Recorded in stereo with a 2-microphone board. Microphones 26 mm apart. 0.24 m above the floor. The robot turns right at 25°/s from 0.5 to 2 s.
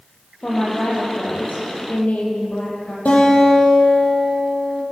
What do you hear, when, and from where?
0.4 s a woman speaking: 55° left, 7.5 m; by 3.0 s 95° left, 7.5 m
3.0 s a guitar: 75° left (ahead or behind), 9 m